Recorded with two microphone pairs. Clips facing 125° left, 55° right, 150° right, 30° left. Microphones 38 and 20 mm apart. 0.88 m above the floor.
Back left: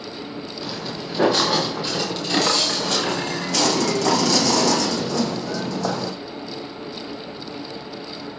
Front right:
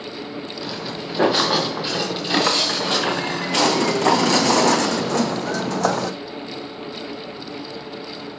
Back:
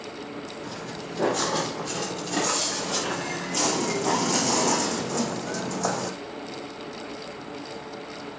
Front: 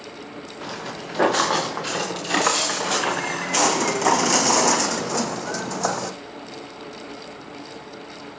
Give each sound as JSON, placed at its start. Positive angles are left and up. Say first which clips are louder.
{"t": 0.6, "sound": "footsteps", "louder": "even, front 3 dB", "azimuth_deg": 15, "distance_m": 6.0}